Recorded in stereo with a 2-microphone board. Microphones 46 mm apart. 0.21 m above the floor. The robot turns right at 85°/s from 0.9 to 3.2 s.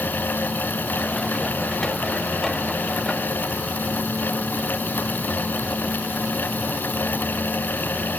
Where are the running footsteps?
I don't hear running footsteps.